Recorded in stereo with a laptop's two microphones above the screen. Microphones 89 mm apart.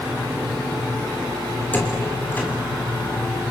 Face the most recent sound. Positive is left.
turn(degrees=25)  # may be behind; listen again after turning